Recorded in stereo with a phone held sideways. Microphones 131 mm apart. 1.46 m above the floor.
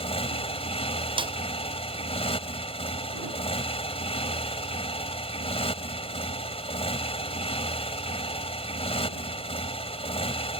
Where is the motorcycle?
50° left (ahead or behind).